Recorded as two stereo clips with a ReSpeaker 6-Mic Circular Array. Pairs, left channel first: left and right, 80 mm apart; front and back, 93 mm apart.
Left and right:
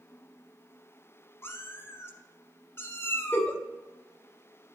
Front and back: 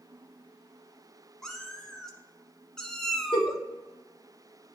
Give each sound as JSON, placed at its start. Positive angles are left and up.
{"t": 1.4, "sound": "a cat meowing", "azimuth_deg": 80, "distance_m": 1.1}
{"t": 3.3, "sound": "a giggle", "azimuth_deg": 25, "distance_m": 1.0}